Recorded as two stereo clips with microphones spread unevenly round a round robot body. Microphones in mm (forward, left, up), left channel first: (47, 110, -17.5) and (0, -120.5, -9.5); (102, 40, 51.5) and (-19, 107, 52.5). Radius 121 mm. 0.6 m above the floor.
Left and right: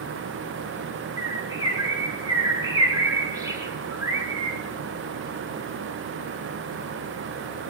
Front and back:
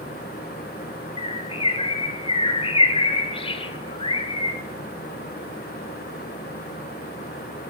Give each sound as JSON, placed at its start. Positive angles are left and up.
{"t": 1.2, "sound": "a bird", "azimuth_deg": -30, "distance_m": 1.3}